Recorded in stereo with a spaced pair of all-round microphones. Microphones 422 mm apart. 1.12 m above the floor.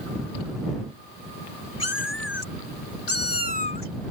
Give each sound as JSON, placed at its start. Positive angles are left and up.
{"t": 1.8, "sound": "a cat meowing", "side_deg": 80}